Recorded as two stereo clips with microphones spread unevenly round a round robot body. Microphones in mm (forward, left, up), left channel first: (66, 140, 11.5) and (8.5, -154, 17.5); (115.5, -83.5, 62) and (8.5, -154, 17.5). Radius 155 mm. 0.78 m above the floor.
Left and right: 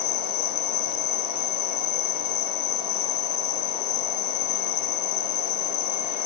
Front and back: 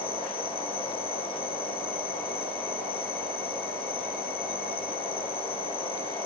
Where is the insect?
85° left.